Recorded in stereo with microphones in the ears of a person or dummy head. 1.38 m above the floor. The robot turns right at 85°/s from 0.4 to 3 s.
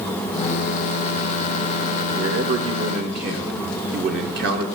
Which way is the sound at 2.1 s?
135° right.